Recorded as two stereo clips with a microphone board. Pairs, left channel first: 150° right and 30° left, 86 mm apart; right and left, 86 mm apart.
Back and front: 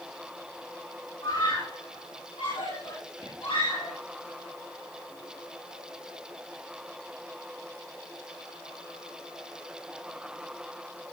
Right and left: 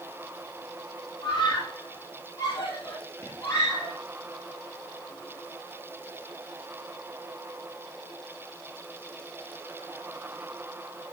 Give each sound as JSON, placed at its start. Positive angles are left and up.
{"t": 1.2, "sound": "a scream", "azimuth_deg": -135, "distance_m": 8.5}